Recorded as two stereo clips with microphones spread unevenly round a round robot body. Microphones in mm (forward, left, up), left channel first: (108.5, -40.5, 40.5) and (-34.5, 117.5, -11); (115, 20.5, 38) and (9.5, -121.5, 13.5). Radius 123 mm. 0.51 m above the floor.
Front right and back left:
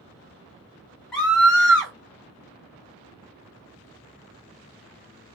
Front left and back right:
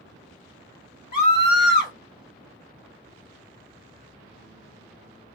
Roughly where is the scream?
Ahead left.